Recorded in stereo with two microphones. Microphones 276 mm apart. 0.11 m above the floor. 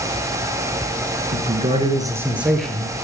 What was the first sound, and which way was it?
A man speaking, 30° right (ahead or behind).